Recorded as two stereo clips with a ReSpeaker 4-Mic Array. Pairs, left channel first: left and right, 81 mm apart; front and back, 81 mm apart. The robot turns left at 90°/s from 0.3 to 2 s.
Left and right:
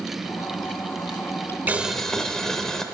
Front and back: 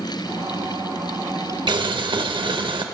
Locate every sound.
1.7 s boiling: 155° right, 0.5 m; by 2.8 s 175° left, 0.5 m